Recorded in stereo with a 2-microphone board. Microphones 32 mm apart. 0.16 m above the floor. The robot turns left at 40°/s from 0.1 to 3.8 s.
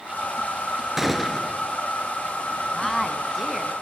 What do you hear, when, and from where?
1.0 s a gunshot: 10° right (ahead or behind), 1.8 m; by 1.6 s 15° left (ahead or behind), 1.8 m
2.7 s a woman speaking: 10° left (ahead or behind), 1.6 m; by 3.7 s 5° right (ahead or behind), 1.6 m